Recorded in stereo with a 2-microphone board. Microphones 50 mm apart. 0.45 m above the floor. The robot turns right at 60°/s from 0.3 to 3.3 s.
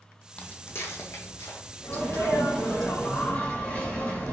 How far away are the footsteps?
About 0.7 m.